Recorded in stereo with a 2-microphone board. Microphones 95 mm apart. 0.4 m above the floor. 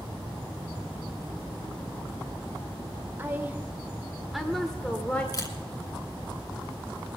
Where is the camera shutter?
40° left (ahead or behind), 1.9 m.